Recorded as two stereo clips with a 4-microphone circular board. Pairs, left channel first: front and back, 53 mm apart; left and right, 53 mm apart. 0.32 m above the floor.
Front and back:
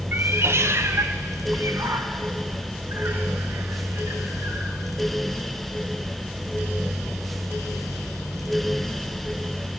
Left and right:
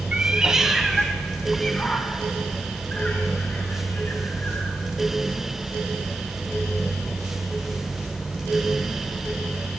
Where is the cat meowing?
150° right, 0.7 m; by 4.7 s 150° left, 2.5 m.